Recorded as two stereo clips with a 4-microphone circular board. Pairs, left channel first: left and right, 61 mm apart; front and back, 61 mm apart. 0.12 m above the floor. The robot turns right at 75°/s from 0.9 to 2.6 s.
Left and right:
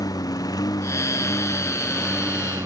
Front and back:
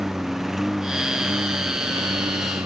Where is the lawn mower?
95° left; by 2.7 s 140° right.